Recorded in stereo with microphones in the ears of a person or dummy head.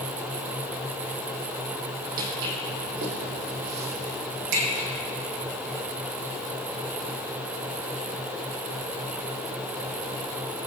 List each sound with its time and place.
2.2 s footsteps: 45° right (ahead or behind), 3 m; by 4.9 s 65° right (ahead or behind), 4 m